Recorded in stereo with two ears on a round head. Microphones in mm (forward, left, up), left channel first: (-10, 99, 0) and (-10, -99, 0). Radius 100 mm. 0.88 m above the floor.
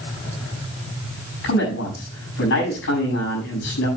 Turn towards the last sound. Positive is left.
turn(degrees=60)  # may be behind; listen again after turning